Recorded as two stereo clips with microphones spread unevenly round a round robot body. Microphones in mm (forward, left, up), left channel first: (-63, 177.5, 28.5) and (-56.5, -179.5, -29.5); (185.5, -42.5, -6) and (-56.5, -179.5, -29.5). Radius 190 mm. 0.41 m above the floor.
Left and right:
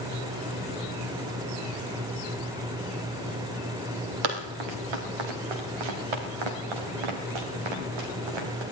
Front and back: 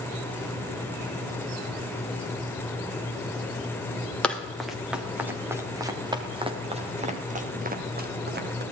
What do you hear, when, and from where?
4.2 s running footsteps: 55° right, 5 m; by 8.6 s 95° right, 5.5 m